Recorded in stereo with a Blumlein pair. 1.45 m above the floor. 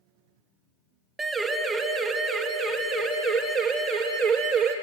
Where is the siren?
15° right, 3.5 m; by 4.7 s 45° right, 5 m.